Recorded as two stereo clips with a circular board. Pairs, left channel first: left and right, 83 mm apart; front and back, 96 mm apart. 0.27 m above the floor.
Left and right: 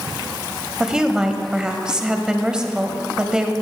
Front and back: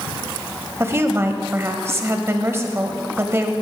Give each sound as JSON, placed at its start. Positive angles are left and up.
{"t": 0.8, "sound": "a woman speaking", "azimuth_deg": -160, "distance_m": 1.0}